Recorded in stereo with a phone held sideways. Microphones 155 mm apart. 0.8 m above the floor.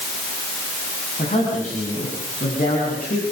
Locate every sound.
1.2 s a man speaking: 50° left (ahead or behind), 8 m; by 3.2 s 60° left (ahead or behind), 8 m